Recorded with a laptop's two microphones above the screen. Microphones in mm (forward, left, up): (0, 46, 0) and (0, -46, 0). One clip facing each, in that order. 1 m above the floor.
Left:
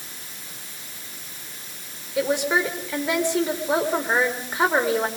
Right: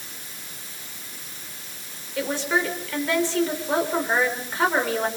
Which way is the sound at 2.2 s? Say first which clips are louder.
Left 3 dB; 15° left (ahead or behind).